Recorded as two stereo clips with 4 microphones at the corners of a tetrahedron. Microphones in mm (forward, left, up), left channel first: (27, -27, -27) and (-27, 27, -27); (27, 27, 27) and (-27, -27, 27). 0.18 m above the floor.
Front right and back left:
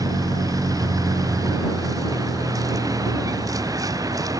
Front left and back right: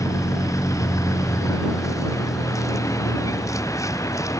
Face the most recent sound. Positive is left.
turn(degrees=95)